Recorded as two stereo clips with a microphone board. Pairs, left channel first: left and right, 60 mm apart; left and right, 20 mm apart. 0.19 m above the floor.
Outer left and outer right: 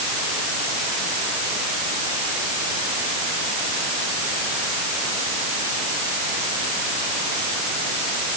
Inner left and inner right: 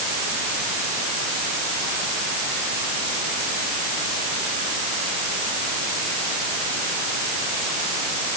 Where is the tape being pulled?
I don't hear tape being pulled.